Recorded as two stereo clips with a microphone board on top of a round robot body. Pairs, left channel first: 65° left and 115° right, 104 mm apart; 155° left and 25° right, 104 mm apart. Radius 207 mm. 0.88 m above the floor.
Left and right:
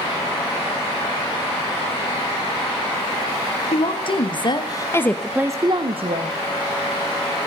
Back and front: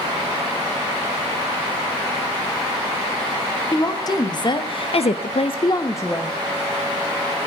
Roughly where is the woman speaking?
Left.